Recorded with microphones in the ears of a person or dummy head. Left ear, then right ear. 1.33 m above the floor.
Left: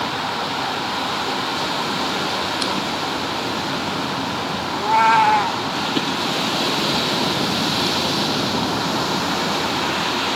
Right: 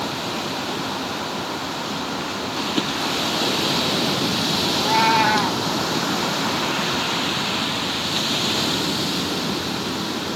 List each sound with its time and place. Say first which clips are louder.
4.7 s a cat meowing: left 4 dB; 15° left (ahead or behind), 0.7 m